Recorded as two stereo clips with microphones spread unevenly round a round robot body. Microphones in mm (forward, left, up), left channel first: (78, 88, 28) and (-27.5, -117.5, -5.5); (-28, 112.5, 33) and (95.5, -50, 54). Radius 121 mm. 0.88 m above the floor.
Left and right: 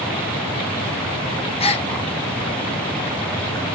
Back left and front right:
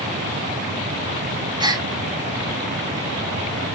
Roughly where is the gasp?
Ahead.